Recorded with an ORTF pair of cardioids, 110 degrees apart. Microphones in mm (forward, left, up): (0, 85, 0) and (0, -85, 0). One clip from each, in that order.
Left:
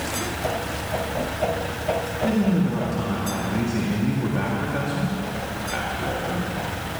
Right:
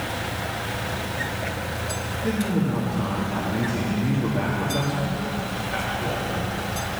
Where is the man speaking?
10° left, 2 m.